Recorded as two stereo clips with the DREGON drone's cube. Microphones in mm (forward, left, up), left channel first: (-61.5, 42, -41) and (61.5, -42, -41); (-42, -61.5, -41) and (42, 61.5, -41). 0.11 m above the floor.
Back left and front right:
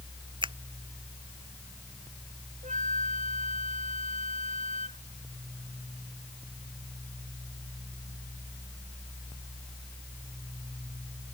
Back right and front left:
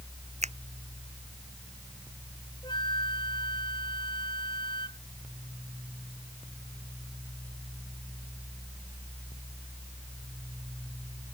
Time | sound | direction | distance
0.4 | a finger snap | 20° left | ?
2.6 | a flute | 65° right | ?